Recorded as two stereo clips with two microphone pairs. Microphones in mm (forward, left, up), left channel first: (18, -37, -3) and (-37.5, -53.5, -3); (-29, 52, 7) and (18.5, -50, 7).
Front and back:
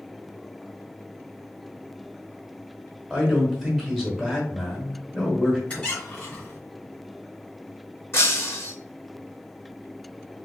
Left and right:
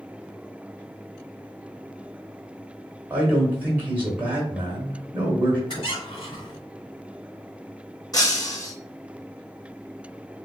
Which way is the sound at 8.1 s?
60° left.